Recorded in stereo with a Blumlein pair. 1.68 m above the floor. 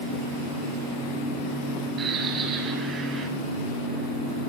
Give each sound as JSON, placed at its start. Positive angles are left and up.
{"t": 2.0, "sound": "a bird", "azimuth_deg": -25, "distance_m": 7.0}